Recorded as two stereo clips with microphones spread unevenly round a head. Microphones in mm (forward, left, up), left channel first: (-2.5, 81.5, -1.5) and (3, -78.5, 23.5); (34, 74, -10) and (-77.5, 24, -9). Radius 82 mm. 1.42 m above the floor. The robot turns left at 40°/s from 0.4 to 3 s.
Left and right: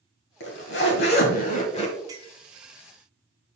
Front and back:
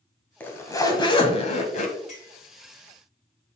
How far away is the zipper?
About 1.6 m.